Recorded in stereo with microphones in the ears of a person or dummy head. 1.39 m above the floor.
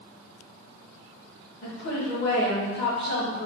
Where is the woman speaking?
55° left (ahead or behind), 1.7 m.